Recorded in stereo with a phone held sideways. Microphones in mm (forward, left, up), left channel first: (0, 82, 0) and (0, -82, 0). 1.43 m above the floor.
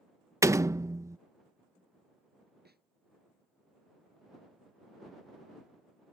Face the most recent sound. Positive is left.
turn(degrees=-80)